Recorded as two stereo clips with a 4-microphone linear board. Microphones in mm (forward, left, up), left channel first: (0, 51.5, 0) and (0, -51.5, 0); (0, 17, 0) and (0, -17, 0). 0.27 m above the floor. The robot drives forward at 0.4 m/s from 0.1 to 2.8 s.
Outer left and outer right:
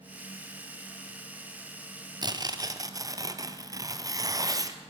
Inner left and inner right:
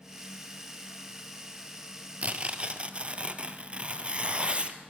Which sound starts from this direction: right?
Tearing paper, at 2.2 s.